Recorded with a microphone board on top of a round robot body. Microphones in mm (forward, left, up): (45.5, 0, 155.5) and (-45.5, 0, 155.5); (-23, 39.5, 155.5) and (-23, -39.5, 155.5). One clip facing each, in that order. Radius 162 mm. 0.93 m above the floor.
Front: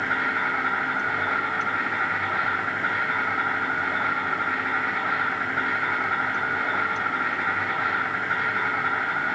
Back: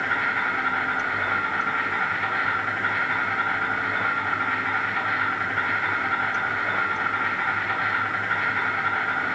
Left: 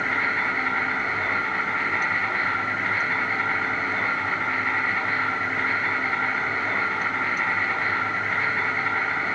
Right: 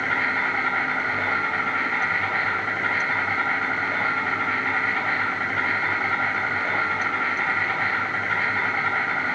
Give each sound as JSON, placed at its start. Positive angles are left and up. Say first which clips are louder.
{"t": 0.0, "sound": "an insect", "louder": "even, right 1 dB", "azimuth_deg": -80, "distance_m": 4.5}